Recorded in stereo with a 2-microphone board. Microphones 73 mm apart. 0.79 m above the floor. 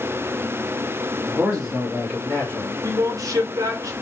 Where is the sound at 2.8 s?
55° right (ahead or behind), 0.8 m.